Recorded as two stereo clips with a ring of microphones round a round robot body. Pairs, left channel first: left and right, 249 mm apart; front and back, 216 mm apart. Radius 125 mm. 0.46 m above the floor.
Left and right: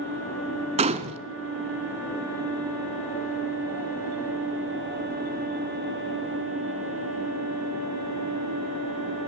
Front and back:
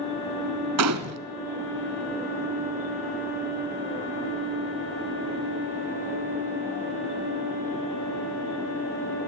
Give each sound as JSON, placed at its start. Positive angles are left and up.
{"t": 0.8, "sound": "a gunshot", "azimuth_deg": -155, "distance_m": 1.0}